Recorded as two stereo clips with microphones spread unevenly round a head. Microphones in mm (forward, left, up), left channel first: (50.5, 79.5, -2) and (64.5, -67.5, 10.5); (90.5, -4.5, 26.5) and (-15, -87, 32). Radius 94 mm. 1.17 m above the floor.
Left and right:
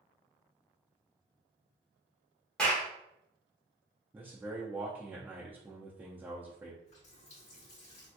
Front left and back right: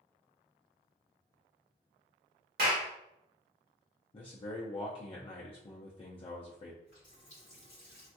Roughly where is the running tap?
Left.